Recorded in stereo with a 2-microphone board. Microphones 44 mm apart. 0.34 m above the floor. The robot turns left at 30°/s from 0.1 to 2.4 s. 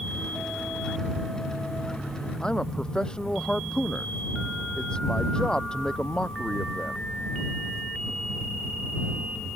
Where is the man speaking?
20° left (ahead or behind).